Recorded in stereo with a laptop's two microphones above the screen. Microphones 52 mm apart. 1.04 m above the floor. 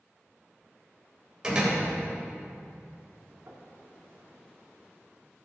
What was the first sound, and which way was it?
A door slam, 15° right (ahead or behind).